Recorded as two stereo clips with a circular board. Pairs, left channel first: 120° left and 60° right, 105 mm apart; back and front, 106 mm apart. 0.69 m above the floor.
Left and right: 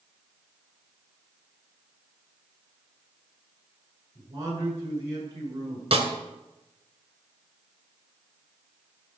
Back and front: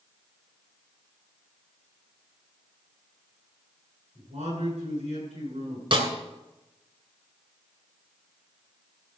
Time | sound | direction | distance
4.2 | a man speaking | straight ahead | 8.5 m
5.9 | a snare drum | 35° right | 2.5 m